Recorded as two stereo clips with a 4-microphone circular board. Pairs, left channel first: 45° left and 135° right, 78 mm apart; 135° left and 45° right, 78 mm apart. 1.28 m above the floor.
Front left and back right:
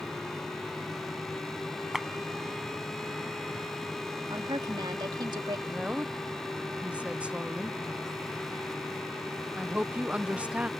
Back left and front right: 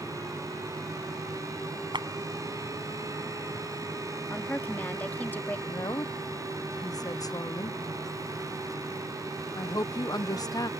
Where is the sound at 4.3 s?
155° right.